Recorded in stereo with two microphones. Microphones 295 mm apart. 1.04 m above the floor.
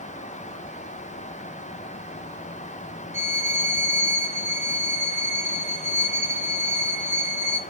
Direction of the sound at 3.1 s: 10° right (ahead or behind).